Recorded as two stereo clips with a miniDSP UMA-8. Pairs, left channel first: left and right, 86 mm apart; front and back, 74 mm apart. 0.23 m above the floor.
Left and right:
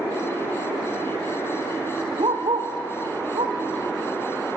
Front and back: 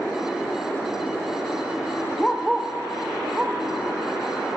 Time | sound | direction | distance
2.2 | a dog barking | 80° right | 1.5 m